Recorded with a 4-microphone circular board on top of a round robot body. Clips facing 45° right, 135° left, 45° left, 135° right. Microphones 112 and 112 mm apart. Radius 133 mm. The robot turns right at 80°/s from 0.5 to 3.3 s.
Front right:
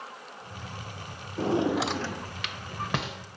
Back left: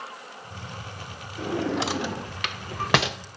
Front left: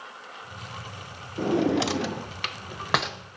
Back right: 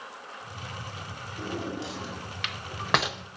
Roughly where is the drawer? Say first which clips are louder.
Front right 1 dB, front left 11 dB; ahead.